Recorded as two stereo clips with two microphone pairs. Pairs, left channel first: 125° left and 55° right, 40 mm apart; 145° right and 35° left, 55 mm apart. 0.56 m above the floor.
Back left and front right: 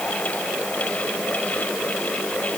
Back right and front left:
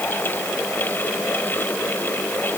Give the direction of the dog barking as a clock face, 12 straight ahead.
I don't hear a dog barking.